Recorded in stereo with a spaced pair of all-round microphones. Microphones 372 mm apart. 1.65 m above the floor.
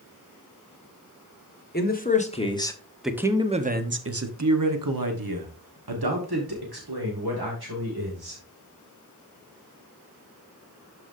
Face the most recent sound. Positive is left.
turn(degrees=-80)